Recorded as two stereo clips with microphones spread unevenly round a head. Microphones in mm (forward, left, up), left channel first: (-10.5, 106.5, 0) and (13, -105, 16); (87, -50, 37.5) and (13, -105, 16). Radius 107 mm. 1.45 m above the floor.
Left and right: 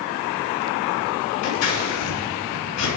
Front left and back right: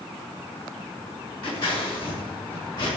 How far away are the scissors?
About 4.5 m.